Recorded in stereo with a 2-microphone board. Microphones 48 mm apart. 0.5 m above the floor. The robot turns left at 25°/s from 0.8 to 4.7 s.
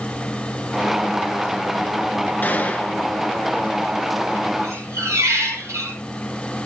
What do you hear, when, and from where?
2.4 s a gunshot: 40° left (ahead or behind), 1.6 m; by 3.0 s 25° left (ahead or behind), 1.6 m
4.6 s a squeak: 75° right (ahead or behind), 4.5 m; by 6.0 s 70° right (ahead or behind), 4.5 m